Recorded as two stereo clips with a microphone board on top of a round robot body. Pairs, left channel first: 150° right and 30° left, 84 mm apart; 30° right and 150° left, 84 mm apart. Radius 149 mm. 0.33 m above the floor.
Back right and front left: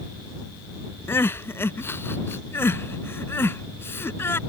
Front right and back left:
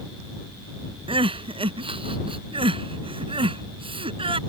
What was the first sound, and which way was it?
Crying, 145° left.